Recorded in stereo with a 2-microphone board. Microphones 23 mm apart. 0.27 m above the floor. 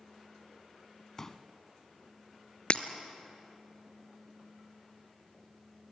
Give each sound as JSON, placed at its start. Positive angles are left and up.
{"t": 1.2, "sound": "a pop", "side_deg": 20, "distance_m": 0.9}
{"t": 2.7, "sound": "breaking glass", "side_deg": 45, "distance_m": 0.9}